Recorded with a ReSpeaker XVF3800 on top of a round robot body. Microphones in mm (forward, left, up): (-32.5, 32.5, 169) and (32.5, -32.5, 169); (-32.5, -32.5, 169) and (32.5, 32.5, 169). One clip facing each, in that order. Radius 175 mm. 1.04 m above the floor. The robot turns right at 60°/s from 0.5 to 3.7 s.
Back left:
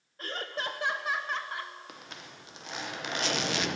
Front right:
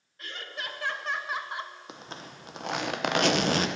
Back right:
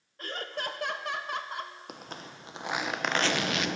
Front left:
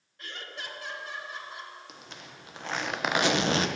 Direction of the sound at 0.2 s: 175° right.